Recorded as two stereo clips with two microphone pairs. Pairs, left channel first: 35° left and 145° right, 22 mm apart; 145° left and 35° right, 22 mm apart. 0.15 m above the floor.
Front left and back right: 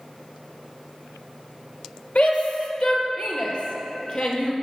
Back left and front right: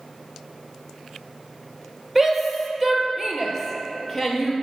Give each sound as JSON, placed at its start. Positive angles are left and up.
{"t": 2.1, "sound": "a shout", "azimuth_deg": 50, "distance_m": 3.0}